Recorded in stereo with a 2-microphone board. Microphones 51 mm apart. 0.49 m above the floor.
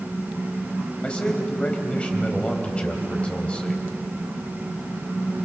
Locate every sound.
1.0 s a man speaking: 20° left (ahead or behind), 3.5 m